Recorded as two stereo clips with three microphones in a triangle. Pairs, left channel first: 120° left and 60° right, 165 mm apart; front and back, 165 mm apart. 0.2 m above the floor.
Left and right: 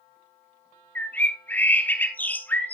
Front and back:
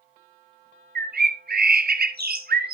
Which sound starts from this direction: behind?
A bird, at 0.9 s.